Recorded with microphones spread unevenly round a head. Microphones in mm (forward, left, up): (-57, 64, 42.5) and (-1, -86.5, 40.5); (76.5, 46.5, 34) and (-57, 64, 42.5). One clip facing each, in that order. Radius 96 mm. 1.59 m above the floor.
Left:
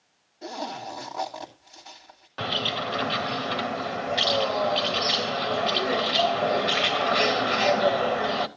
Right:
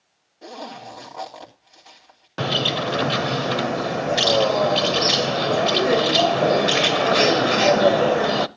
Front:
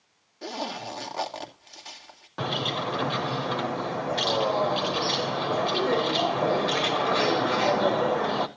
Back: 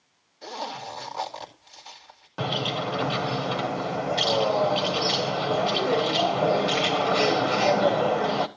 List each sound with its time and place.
0.4 s a zipper: 25° left, 3 m
2.4 s a bird: 105° right, 0.6 m